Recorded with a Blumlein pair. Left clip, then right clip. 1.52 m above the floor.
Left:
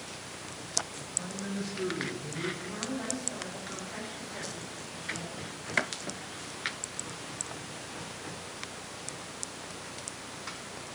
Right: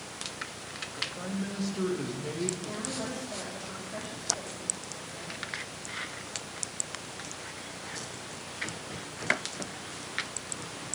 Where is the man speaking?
65° right, 2.5 m; by 2.5 s 70° right, 1.7 m.